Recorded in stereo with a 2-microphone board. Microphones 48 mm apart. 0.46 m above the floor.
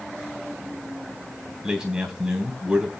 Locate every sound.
1.6 s a man speaking: 15° right (ahead or behind), 3 m